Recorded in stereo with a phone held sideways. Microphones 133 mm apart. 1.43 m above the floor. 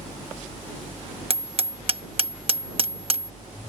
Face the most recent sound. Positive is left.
turn(degrees=-45)  # may be behind; listen again after turning